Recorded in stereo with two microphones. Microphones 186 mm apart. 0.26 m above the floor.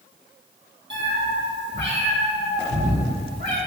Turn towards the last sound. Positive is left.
turn(degrees=-65)  # may be behind; listen again after turning